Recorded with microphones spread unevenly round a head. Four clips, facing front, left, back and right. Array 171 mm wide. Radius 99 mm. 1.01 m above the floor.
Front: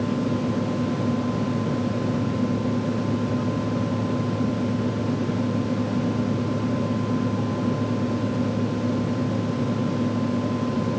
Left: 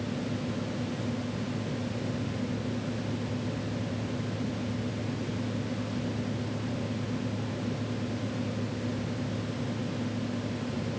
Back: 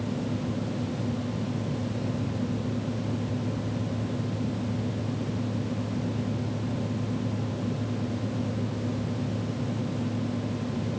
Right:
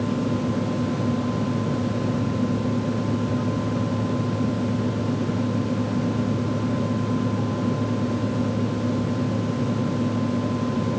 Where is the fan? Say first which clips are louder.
Right 9 dB, front 7 dB; 35° right.